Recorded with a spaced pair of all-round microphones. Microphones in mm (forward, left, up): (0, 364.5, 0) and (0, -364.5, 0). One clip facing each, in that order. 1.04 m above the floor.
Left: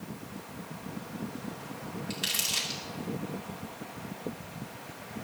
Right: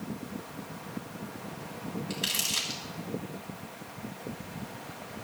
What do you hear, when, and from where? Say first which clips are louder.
2.1 s crumpling: right 2 dB; 25° left (ahead or behind), 2.5 m